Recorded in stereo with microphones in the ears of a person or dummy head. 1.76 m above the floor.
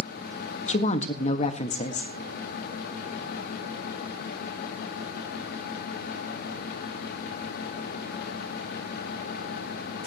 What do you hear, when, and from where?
0.7 s a woman speaking: 40° left (ahead or behind), 1.6 m